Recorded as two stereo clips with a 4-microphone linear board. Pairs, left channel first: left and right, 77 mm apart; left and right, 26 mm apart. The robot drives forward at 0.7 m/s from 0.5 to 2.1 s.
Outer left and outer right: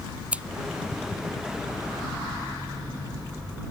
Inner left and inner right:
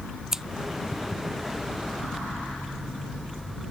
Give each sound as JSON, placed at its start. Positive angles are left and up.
{"t": 0.3, "sound": "scissors", "side_deg": -15}